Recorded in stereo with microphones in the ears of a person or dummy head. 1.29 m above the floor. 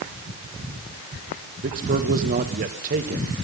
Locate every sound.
1.6 s a man speaking: 45° right (ahead or behind), 1.5 m